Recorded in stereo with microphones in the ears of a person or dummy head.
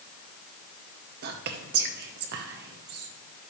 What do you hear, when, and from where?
1.2 s whispering: 55° right (ahead or behind), 0.9 m